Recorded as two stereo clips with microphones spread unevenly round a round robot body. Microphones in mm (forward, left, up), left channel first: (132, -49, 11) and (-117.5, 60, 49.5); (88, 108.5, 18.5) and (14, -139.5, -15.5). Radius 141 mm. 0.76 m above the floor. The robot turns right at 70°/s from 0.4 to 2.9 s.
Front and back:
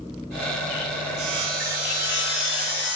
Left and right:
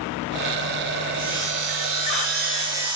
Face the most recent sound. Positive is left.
turn(degrees=-20)